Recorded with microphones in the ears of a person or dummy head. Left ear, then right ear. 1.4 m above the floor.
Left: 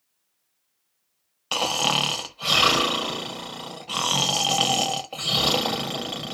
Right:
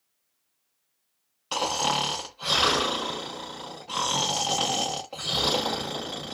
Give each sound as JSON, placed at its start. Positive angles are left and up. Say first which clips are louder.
{"t": 1.5, "sound": "snoring", "louder": "left 3 dB", "side_deg": 10, "distance_m": 0.8}